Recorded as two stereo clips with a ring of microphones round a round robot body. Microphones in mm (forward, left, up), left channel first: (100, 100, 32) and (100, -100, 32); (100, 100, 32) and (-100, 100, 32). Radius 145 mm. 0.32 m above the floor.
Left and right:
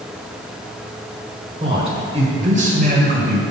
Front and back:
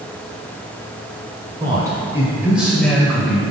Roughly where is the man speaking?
Behind right.